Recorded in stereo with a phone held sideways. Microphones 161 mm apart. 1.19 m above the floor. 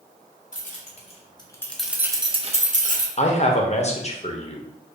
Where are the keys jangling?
55° left (ahead or behind), 1.0 m; by 3.1 s 60° right (ahead or behind), 0.9 m.